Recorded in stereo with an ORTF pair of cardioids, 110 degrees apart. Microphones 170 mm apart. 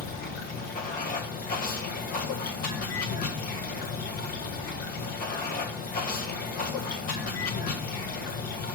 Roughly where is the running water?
Ahead left.